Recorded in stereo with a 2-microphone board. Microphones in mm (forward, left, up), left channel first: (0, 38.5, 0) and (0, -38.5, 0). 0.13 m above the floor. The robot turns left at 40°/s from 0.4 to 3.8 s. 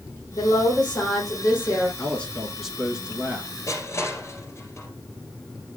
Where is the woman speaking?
75° left, 6.5 m; by 1.9 s 15° left, 6.5 m.